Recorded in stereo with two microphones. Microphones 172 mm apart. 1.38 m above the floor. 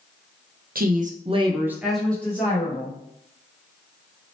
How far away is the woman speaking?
About 0.6 m.